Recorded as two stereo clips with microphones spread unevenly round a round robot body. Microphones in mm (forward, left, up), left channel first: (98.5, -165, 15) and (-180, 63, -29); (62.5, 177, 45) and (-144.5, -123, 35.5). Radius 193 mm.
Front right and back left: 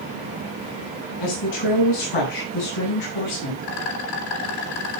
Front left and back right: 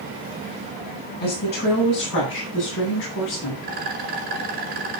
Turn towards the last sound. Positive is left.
turn(degrees=-60)